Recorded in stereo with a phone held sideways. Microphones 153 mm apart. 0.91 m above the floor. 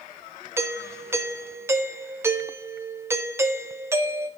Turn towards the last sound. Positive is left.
turn(degrees=-15)  # may be behind; listen again after turning